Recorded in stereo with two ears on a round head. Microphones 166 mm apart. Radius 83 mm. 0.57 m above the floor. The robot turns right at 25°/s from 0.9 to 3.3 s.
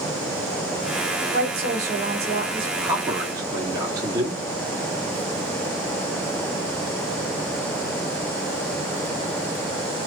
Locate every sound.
1.3 s a woman speaking: 65° right, 1.7 m; by 2.7 s 30° right, 1.7 m
2.8 s a man speaking: 15° right (ahead or behind), 1.2 m; by 4.4 s 20° right (ahead or behind), 1.2 m